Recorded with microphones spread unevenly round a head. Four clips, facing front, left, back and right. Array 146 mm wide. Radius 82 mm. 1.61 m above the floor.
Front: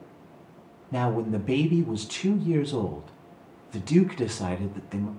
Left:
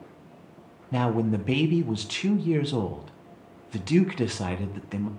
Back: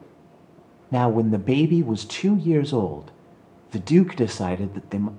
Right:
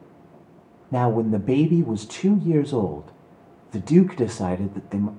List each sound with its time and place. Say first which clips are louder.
0.9 s a man speaking: right 4 dB, back 7 dB; 145° right, 1.5 m